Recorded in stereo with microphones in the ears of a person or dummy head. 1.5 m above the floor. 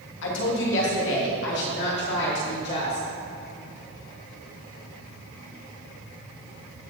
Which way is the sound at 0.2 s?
70° left (ahead or behind).